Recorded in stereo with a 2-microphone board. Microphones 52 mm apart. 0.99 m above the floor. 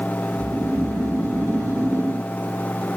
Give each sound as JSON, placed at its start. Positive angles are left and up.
{"t": 0.3, "sound": "snoring", "side_deg": -65, "distance_m": 1.1}